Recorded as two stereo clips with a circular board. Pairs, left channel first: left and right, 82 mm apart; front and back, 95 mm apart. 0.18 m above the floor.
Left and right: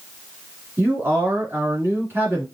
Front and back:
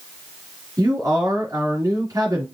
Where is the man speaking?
140° right, 2 m.